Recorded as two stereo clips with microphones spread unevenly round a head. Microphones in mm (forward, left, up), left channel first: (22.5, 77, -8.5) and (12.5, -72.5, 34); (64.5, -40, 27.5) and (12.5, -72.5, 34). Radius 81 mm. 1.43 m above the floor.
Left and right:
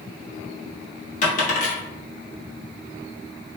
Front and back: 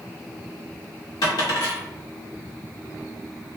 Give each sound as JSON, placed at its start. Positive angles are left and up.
{"t": 1.2, "sound": "a dropped coin", "azimuth_deg": 45, "distance_m": 1.1}